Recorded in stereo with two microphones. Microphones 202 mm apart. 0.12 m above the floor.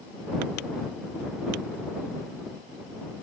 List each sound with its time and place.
Only background noise.